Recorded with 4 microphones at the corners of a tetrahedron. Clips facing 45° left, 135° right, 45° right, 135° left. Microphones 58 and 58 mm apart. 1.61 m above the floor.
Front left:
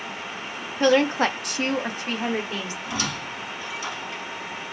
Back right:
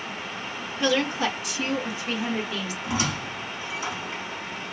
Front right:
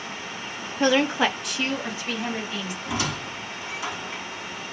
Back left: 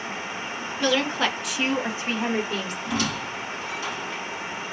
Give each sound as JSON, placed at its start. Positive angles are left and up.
{"t": 0.8, "sound": "a woman speaking", "azimuth_deg": 5, "distance_m": 0.8}
{"t": 2.8, "sound": "a squeak", "azimuth_deg": -110, "distance_m": 1.5}